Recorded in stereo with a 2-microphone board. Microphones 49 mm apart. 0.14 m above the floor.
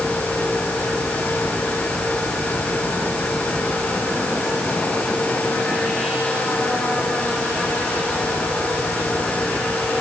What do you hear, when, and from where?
Only background noise.